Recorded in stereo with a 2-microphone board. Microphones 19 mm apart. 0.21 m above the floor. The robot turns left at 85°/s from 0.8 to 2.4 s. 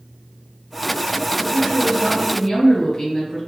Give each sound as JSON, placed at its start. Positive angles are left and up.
{"t": 1.4, "sound": "a woman speaking", "side_deg": -15, "distance_m": 1.4}